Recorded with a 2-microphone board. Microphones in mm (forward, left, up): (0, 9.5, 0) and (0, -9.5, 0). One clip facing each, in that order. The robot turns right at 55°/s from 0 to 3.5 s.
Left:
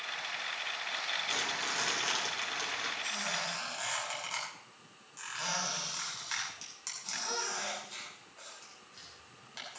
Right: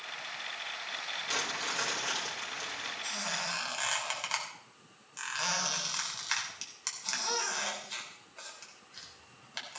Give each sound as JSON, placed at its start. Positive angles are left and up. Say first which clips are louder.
{"t": 1.3, "sound": "crumpling", "louder": "even", "azimuth_deg": -15, "distance_m": 4.0}
{"t": 3.0, "sound": "a squeak", "louder": "even", "side_deg": -5, "distance_m": 3.0}